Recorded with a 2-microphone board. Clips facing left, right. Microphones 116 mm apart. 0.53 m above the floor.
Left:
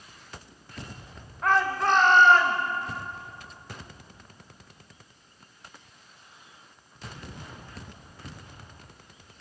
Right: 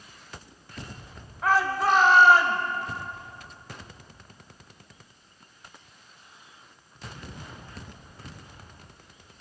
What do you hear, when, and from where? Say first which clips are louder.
1.4 s a shout: right 1 dB; centre (ahead or behind), 1.7 m; by 2.6 s 10° right (ahead or behind), 3 m